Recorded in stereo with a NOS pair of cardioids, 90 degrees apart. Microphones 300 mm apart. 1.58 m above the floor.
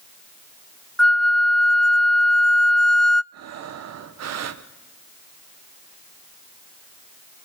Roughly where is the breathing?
Ahead right.